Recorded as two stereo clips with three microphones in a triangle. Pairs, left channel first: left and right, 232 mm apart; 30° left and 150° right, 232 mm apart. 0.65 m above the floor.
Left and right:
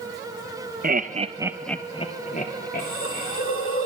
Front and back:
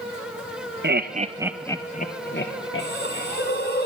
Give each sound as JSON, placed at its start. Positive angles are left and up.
{"t": 0.8, "sound": "laughter", "azimuth_deg": -130, "distance_m": 0.8}
{"t": 2.8, "sound": "a hiss", "azimuth_deg": 70, "distance_m": 1.8}